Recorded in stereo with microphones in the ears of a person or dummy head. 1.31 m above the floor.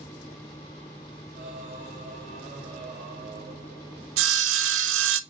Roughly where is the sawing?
Right.